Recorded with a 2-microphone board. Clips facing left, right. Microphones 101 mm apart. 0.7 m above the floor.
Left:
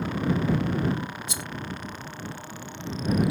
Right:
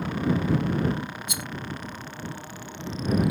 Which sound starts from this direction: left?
A rattle, at 1.3 s.